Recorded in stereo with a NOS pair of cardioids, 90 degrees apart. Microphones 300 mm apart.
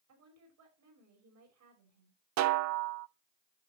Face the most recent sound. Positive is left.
turn(degrees=-65)